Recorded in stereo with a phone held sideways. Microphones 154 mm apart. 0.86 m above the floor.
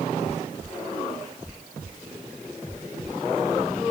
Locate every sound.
Only background noise.